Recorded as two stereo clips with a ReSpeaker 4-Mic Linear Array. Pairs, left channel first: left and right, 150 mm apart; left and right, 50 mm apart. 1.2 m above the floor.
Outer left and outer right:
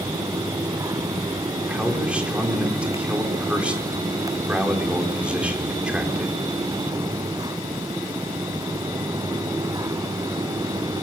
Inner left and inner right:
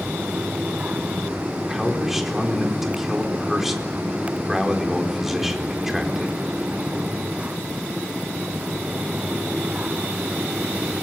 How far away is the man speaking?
About 4 m.